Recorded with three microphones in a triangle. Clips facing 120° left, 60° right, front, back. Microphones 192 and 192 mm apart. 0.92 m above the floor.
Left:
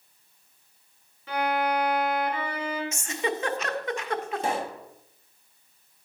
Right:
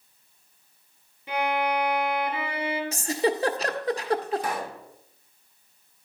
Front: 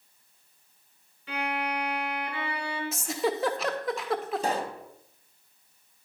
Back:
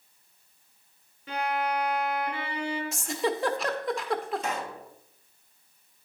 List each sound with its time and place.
1.3 s a violin: 140° right, 3 m
2.9 s a giggle: 90° right, 0.6 m
4.4 s a pop: 60° left, 0.6 m